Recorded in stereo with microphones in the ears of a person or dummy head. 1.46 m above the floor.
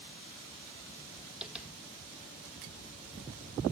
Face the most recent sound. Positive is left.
turn(degrees=0)  # may be behind; listen again after turning